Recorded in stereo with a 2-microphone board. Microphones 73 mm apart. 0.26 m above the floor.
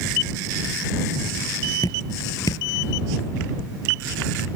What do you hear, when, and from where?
1.8 s dripping: 60° left (ahead or behind)